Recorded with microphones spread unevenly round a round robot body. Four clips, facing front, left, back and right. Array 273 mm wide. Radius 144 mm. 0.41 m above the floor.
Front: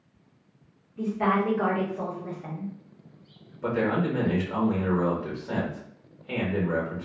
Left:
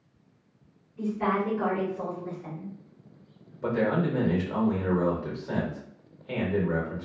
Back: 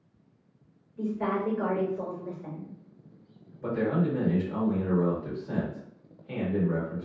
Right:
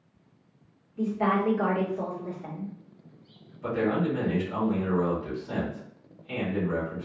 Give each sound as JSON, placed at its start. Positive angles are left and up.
{"t": 1.0, "sound": "a woman speaking", "azimuth_deg": -65, "distance_m": 1.2}
{"t": 3.6, "sound": "a man speaking", "azimuth_deg": 65, "distance_m": 1.3}